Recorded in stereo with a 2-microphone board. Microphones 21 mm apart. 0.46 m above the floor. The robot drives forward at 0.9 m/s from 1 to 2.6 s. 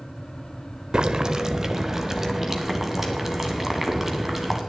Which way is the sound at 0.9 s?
35° right (ahead or behind).